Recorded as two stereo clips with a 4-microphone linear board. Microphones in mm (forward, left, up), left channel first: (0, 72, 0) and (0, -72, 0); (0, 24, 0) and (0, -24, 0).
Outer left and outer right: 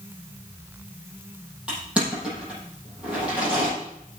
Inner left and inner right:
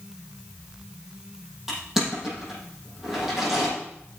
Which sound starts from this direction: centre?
Crushing, at 1.7 s.